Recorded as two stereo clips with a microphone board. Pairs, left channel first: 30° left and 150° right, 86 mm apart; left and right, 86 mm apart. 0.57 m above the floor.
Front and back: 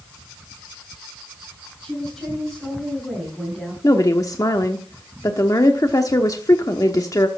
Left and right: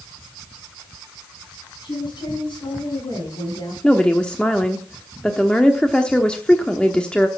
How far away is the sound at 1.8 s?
About 6.5 m.